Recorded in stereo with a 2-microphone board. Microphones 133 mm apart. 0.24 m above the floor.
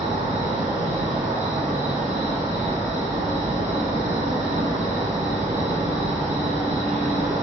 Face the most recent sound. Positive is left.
turn(degrees=-65)  # may be behind; listen again after turning